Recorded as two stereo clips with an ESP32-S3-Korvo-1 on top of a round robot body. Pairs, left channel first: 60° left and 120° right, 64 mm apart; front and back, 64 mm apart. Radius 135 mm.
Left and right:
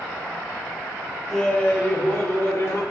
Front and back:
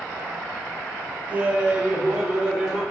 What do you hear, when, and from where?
1.3 s laughter: 135° left, 0.9 m; by 2.8 s 105° left, 1.6 m